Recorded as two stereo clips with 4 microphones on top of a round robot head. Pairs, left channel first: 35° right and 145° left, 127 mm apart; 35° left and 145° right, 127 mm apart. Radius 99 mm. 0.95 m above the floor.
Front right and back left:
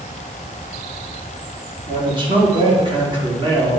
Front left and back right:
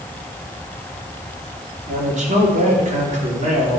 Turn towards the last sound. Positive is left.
turn(degrees=-165)